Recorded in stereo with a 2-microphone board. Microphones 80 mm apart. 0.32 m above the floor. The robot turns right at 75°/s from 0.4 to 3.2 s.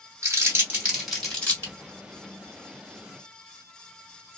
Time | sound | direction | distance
0.2 | crumpling | 35° right (ahead or behind) | 2.0 m